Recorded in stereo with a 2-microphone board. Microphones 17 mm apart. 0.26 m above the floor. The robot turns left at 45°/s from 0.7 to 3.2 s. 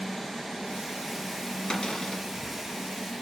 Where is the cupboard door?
55° left (ahead or behind), 1.4 m; by 2.2 s 35° left (ahead or behind), 1.4 m.